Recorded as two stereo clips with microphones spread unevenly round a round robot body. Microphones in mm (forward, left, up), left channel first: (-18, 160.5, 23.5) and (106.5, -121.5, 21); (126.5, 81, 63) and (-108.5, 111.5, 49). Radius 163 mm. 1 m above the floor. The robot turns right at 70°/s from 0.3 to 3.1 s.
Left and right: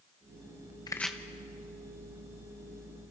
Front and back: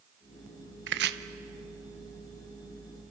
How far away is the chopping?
About 0.8 m.